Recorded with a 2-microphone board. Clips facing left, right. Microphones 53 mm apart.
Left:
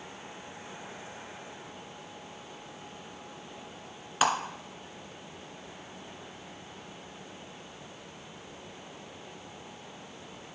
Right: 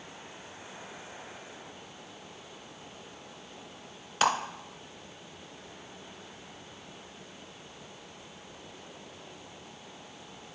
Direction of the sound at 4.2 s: 5° left (ahead or behind).